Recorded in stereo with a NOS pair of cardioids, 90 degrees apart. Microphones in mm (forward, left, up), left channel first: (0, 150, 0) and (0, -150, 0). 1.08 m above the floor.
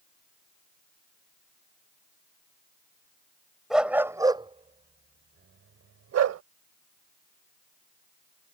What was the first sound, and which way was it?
A dog barking, straight ahead.